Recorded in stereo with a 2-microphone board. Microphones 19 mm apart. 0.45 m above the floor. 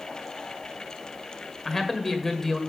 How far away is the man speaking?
About 1.6 m.